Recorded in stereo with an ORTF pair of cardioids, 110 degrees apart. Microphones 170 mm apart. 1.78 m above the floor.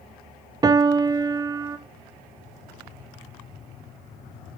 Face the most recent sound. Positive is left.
turn(degrees=-25)